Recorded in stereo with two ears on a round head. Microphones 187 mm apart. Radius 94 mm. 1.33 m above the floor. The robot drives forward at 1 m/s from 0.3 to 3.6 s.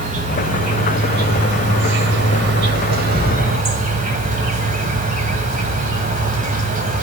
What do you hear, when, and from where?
0.0 s an insect: 35° right (ahead or behind), 2.5 m; by 7.0 s 40° right (ahead or behind), 2.5 m